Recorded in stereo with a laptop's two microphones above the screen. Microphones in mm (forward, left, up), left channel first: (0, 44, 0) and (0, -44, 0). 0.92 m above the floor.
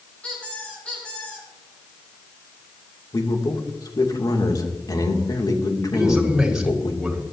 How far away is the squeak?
About 5.5 m.